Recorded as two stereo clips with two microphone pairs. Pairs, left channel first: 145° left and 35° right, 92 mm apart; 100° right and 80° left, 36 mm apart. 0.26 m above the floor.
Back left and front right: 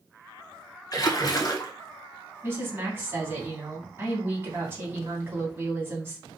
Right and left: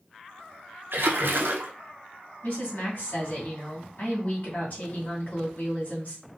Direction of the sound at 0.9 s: 95° left.